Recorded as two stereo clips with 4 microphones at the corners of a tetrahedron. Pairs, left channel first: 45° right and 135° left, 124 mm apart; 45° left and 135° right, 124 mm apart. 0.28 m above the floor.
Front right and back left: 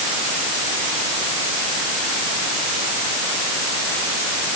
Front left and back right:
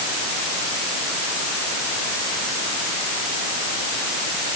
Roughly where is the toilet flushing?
No toilet flushing in this recording.